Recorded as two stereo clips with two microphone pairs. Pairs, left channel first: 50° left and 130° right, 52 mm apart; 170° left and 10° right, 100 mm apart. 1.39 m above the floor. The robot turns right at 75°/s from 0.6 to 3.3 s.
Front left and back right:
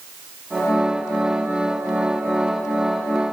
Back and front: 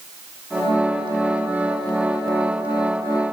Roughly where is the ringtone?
I don't hear a ringtone.